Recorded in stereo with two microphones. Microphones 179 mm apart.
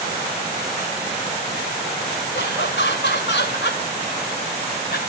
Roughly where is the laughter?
Left.